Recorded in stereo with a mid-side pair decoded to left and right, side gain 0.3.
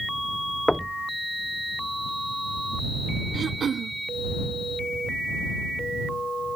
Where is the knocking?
15° left.